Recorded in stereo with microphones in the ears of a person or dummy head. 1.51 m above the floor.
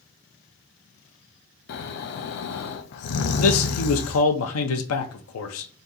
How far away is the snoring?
About 0.6 m.